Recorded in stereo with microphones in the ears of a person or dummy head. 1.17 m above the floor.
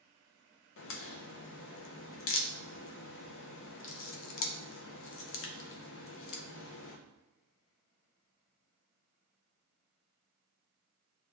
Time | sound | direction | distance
0.8 | a crack | 65° left (ahead or behind) | 0.6 m